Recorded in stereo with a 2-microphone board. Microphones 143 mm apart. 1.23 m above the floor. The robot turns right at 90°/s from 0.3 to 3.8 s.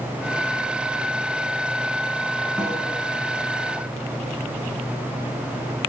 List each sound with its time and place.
2.6 s a snare drum: 15° right (ahead or behind), 7 m; by 2.8 s 30° right (ahead or behind), 7 m